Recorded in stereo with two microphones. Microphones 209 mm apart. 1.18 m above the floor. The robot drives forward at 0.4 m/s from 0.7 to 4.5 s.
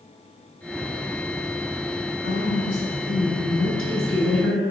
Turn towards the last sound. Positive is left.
turn(degrees=-85)